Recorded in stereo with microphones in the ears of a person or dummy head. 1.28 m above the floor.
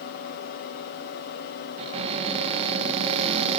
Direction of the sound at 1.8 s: 30° right (ahead or behind).